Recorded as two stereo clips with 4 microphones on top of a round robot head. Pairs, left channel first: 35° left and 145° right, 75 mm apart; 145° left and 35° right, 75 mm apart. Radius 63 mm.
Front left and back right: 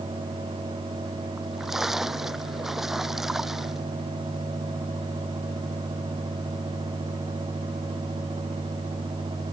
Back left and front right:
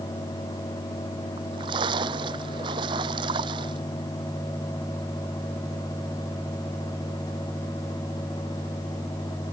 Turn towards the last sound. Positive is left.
turn(degrees=-60)